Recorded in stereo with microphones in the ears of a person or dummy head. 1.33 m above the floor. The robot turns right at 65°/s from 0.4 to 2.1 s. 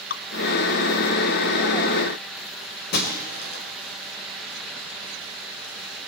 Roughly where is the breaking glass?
Left.